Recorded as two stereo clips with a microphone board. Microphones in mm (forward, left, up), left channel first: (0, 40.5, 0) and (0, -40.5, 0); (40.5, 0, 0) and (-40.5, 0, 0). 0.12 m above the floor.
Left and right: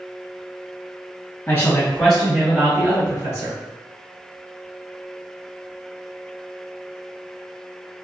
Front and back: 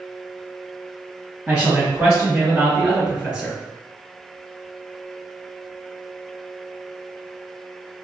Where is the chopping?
No chopping in this recording.